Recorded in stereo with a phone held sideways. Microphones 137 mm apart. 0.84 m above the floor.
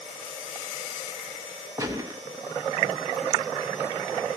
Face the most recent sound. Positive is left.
turn(degrees=-25)  # may be behind; listen again after turning